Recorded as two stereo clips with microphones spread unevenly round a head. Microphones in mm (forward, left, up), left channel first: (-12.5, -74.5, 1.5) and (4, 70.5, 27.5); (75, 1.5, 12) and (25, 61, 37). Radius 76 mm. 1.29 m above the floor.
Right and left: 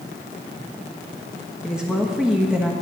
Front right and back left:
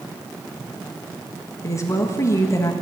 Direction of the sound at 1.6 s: Straight ahead.